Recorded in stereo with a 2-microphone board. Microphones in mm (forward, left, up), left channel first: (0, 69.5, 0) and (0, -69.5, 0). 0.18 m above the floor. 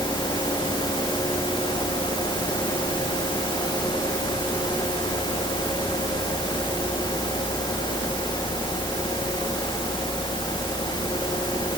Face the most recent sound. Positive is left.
No sound to turn to.